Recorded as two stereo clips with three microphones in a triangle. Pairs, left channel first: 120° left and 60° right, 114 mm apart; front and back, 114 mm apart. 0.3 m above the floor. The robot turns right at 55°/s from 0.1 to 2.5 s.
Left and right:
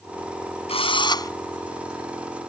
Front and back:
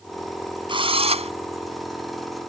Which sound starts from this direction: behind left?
A drill, at 0.7 s.